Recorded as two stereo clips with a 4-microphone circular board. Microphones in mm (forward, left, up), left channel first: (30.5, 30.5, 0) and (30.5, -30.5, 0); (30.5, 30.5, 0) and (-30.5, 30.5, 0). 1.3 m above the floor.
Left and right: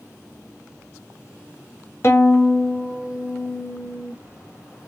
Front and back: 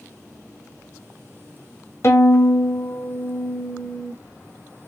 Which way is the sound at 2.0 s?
40° left.